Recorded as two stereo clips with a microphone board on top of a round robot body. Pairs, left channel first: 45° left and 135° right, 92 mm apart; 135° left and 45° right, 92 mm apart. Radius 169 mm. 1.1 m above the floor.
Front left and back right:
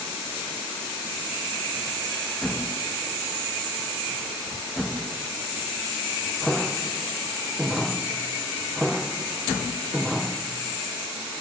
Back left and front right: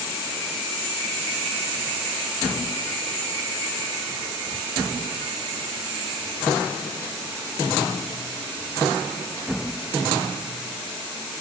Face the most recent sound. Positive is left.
No sound to turn to.